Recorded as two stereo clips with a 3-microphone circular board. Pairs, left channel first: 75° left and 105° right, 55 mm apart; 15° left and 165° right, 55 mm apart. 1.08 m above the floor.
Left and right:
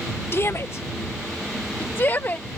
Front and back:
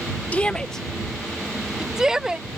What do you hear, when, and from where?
0.3 s a shout: 70° left; by 2.6 s 120° left